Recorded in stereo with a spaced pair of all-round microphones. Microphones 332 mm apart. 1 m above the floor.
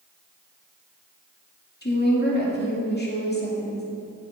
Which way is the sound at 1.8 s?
30° left (ahead or behind).